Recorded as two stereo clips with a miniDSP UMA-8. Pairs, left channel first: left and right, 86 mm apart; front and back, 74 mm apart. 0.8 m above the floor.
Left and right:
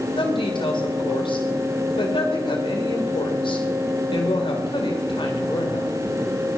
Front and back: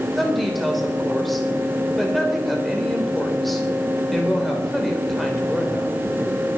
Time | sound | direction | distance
0.2 | a woman speaking | 90° left | 3 m